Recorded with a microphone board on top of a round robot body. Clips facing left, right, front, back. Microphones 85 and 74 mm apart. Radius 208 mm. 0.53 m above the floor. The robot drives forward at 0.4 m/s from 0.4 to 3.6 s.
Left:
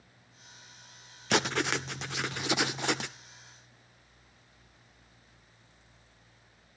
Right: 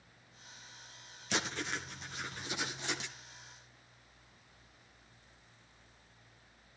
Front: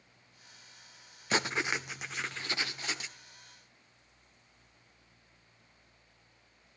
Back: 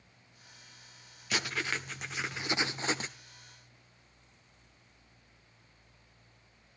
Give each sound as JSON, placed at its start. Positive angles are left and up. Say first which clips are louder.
{"t": 1.3, "sound": "writing", "louder": "left 9 dB, front 3 dB", "azimuth_deg": 60, "distance_m": 0.6}